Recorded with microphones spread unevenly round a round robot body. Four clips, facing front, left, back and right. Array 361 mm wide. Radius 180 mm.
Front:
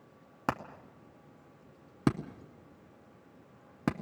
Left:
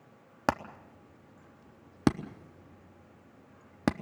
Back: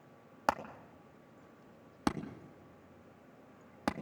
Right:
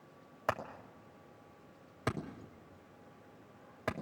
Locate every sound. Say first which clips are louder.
0.5 s hammering: left 6 dB, back 1 dB; 60° left, 0.9 m